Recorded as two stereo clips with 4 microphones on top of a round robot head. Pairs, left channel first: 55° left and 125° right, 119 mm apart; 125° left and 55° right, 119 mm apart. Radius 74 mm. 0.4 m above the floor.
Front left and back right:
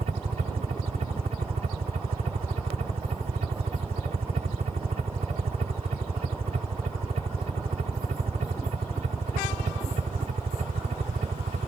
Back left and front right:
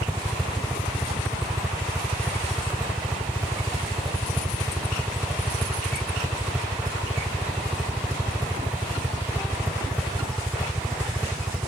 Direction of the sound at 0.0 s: 130° right.